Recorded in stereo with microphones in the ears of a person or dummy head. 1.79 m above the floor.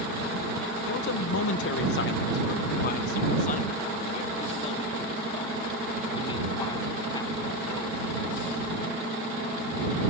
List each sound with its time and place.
0.9 s a man speaking: 70° left (ahead or behind); by 8.1 s 30° left (ahead or behind)